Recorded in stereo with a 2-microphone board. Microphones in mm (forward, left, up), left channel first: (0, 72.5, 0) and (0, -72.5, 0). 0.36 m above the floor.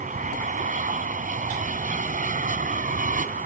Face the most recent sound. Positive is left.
turn(degrees=-65)  # may be behind; listen again after turning